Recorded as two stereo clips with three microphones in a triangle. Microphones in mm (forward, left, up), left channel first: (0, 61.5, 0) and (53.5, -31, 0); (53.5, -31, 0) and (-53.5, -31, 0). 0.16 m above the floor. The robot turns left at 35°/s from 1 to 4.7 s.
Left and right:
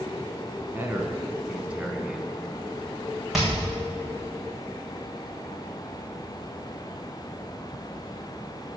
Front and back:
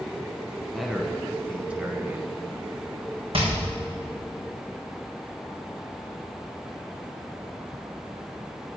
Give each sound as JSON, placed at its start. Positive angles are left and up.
{"t": 0.7, "sound": "a man speaking", "azimuth_deg": -95, "distance_m": 1.2}
{"t": 3.3, "sound": "hammering", "azimuth_deg": -150, "distance_m": 4.0}